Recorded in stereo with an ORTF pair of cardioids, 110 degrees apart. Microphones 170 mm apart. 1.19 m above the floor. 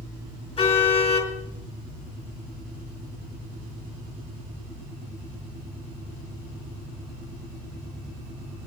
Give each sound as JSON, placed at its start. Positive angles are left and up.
{"t": 0.6, "sound": "a car horn", "azimuth_deg": 40, "distance_m": 6.0}